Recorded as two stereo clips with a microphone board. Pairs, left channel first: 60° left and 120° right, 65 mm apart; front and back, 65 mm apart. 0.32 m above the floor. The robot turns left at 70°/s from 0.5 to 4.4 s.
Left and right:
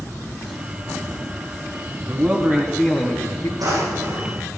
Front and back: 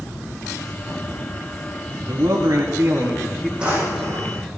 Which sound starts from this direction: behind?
A man speaking, at 2.0 s.